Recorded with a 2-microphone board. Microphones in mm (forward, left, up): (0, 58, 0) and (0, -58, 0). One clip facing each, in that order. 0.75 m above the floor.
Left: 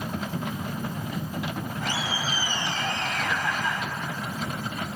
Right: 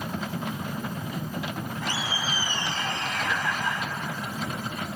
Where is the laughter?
65° left (ahead or behind), 4 m.